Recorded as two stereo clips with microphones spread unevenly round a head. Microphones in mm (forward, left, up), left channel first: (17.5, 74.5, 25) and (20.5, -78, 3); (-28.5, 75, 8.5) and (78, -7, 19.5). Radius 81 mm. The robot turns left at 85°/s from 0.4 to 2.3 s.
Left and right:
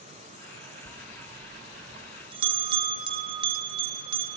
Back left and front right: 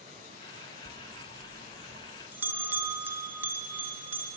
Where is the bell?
10° left, 0.6 m; by 4.4 s 115° right, 0.6 m.